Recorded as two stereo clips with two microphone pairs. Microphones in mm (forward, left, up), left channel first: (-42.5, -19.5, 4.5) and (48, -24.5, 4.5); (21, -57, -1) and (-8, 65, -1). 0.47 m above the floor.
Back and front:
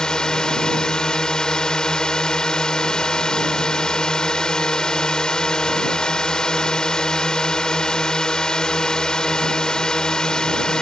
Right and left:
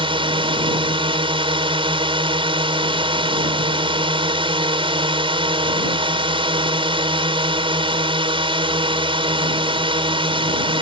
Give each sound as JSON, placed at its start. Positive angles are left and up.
{"t": 0.0, "sound": "a drone", "azimuth_deg": 100}